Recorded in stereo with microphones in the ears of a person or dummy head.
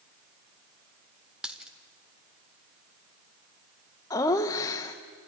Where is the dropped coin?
Centre (ahead or behind), 1.4 m.